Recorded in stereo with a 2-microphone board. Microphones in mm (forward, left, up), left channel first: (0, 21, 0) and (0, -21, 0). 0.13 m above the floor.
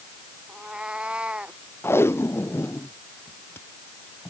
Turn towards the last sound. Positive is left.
turn(degrees=70)  # may be behind; listen again after turning